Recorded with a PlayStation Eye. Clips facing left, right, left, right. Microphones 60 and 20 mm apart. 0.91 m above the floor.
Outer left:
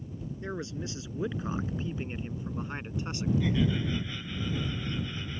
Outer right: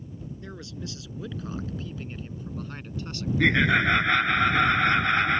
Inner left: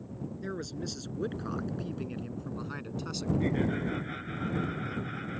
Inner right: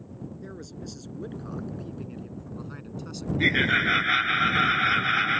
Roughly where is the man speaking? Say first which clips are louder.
Outer left 6 dB, inner left 3 dB; left.